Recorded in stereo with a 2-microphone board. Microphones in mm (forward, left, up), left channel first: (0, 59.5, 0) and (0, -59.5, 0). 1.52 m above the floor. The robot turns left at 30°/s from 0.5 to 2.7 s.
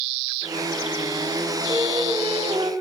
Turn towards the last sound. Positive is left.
turn(degrees=-110)